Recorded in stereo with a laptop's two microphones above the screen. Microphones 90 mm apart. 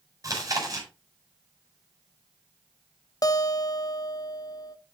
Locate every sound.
0.2 s chewing: 40° right (ahead or behind), 4.5 m
3.2 s a guitar: 45° left (ahead or behind), 1.0 m